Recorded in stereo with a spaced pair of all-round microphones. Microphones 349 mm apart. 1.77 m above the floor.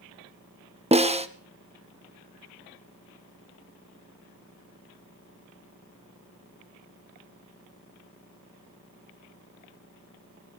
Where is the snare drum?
20° right (ahead or behind), 1.0 m.